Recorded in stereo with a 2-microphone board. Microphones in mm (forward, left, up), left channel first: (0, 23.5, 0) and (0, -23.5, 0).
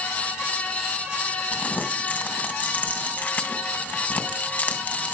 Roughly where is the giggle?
No giggle in this recording.